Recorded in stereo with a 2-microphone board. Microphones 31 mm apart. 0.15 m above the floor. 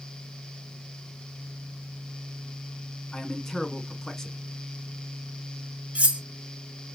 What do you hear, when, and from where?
3.1 s a man speaking: 15° left (ahead or behind), 1.2 m
6.0 s cutlery clinking: 40° right (ahead or behind), 1.1 m